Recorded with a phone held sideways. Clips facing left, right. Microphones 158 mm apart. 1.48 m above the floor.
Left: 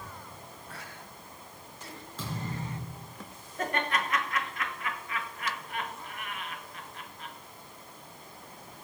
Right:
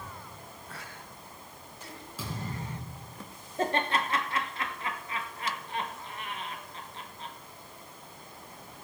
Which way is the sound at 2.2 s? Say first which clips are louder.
Left 1 dB; 10° right (ahead or behind).